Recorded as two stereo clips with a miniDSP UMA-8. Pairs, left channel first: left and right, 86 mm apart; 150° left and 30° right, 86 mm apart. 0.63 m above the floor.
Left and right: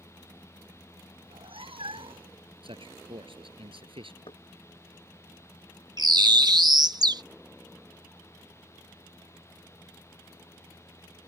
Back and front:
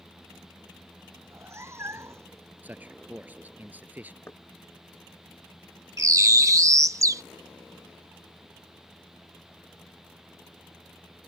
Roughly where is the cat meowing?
Right.